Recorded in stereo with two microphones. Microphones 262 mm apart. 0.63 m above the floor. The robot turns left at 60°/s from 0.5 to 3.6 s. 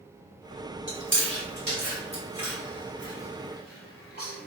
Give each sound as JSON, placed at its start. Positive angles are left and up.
{"t": 0.9, "sound": "chewing", "side_deg": -45, "distance_m": 1.4}